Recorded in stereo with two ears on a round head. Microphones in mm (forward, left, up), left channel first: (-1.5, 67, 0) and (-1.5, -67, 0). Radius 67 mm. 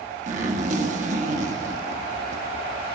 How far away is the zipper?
About 1.1 m.